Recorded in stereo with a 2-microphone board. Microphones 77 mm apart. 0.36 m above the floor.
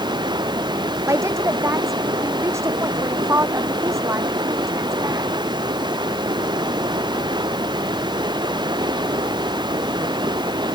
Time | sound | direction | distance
0.0 | running water | 70° right (ahead or behind) | ?
1.1 | a woman speaking | 40° right (ahead or behind) | ?